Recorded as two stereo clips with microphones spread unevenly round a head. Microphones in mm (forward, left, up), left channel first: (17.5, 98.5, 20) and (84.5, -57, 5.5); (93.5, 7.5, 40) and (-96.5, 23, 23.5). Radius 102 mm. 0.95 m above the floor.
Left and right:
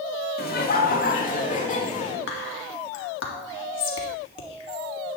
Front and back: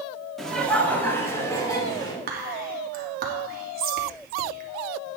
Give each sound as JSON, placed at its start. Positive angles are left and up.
{"t": 0.4, "sound": "laughter", "azimuth_deg": 85, "distance_m": 1.9}
{"t": 2.3, "sound": "whispering", "azimuth_deg": 135, "distance_m": 2.0}